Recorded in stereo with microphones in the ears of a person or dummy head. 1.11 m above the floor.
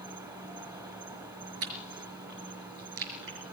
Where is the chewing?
80° right, 5 m.